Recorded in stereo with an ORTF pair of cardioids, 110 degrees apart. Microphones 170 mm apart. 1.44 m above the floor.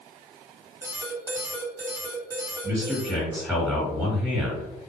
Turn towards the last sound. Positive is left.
turn(degrees=-5)